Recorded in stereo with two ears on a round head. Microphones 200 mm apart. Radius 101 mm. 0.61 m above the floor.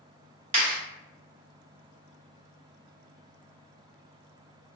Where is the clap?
30° right (ahead or behind), 1.4 m.